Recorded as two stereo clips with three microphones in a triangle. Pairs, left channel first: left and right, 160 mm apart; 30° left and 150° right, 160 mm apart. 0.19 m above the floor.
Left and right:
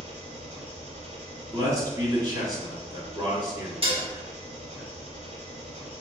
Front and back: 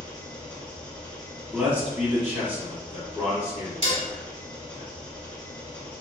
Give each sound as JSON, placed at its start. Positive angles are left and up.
{"t": 0.0, "sound": "an engine running", "azimuth_deg": -55, "distance_m": 1.0}
{"t": 1.5, "sound": "a man speaking", "azimuth_deg": -85, "distance_m": 1.4}
{"t": 3.8, "sound": "dishes clattering", "azimuth_deg": -125, "distance_m": 1.1}